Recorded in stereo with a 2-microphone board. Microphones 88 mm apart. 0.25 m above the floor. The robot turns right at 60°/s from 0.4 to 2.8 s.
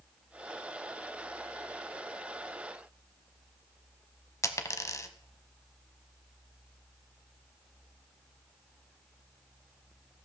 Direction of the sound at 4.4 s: 35° left (ahead or behind).